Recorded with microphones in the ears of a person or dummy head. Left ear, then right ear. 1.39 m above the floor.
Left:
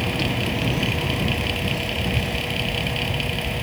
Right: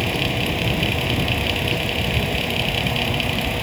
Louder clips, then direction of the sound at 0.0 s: Right 2 dB; 20° right (ahead or behind).